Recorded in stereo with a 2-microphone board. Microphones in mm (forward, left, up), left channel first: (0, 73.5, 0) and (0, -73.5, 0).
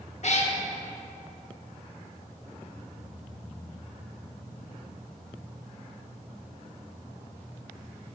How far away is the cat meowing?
About 0.6 m.